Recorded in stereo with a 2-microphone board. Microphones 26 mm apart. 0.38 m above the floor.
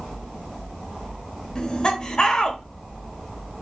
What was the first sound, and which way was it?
Laughter, 30° left (ahead or behind).